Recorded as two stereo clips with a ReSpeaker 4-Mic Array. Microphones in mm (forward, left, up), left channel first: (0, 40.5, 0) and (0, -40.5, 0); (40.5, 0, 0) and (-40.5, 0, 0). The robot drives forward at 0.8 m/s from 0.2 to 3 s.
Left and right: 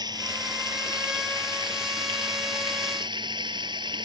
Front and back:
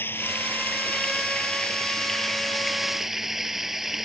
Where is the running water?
60° right; by 4.0 s 95° right.